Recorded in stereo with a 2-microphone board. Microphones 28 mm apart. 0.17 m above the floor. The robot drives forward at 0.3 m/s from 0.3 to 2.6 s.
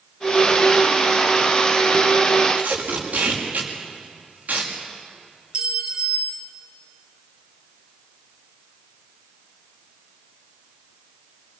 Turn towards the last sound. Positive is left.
turn(degrees=-30)  # may be behind; listen again after turning